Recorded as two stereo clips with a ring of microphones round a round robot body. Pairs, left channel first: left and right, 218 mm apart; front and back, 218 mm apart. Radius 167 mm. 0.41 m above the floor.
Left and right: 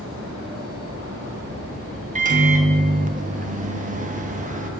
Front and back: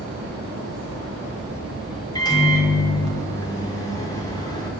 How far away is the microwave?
About 0.6 m.